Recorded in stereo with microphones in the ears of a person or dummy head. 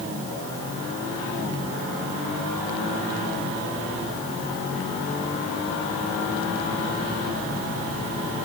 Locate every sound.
Only background noise.